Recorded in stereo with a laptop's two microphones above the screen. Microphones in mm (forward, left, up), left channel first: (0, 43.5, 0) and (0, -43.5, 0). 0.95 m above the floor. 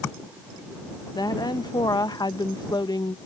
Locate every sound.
1.1 s a woman speaking: 55° left (ahead or behind)